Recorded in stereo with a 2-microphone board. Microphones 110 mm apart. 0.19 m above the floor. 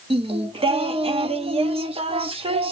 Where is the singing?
60° right (ahead or behind), 0.6 m.